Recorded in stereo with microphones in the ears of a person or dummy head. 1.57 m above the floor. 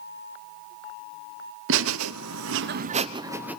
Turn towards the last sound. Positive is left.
turn(degrees=-10)  # may be behind; listen again after turning